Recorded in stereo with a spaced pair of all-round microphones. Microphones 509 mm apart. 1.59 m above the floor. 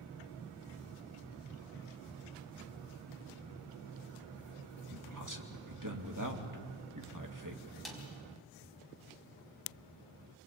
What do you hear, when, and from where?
4.9 s a man speaking: 35° right (ahead or behind), 2.5 m
7.8 s a snare drum: centre (ahead or behind), 4.5 m